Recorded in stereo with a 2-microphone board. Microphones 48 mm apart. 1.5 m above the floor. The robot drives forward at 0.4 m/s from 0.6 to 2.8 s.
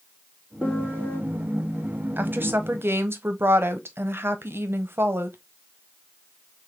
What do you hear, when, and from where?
0.6 s a piano: 25° left (ahead or behind), 1.7 m; by 1.2 s 30° left (ahead or behind), 1.5 m
2.2 s a woman speaking: 45° right (ahead or behind), 1.0 m; by 5.4 s 60° right (ahead or behind), 0.9 m